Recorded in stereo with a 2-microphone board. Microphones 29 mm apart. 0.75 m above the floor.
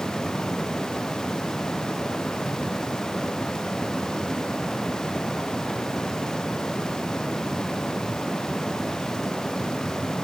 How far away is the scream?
No scream in this recording.